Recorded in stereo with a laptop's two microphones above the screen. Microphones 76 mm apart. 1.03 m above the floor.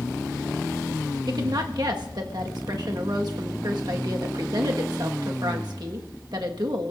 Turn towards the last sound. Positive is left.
turn(degrees=-65)  # may be behind; listen again after turning